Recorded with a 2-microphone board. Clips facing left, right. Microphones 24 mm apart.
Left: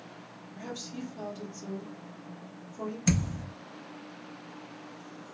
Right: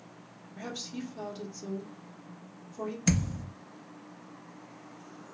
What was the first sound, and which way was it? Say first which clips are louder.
A woman speaking: right 1 dB; 20° right (ahead or behind).